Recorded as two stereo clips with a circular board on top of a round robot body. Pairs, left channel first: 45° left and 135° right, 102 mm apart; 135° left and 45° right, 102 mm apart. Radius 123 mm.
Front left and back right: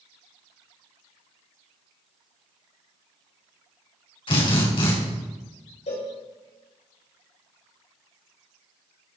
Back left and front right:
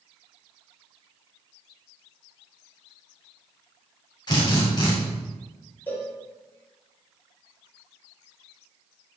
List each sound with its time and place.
4.3 s a drill: 85° left, 5.5 m
5.9 s a cowbell: 65° left, 4 m